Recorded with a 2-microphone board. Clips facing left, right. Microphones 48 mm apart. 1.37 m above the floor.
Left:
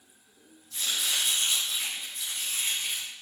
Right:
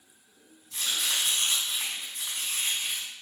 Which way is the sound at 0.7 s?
80° right.